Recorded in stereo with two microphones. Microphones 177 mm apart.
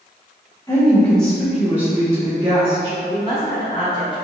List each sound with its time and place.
0.7 s a woman speaking: 15° left (ahead or behind), 1.1 m; by 2.9 s 30° right (ahead or behind), 1.4 m
3.0 s a woman speaking: 30° left (ahead or behind), 1.9 m